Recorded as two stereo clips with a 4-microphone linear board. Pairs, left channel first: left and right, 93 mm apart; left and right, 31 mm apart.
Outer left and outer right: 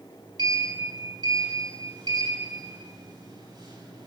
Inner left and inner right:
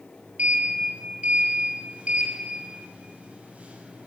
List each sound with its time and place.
0.4 s a sliding door: 50° right (ahead or behind), 7 m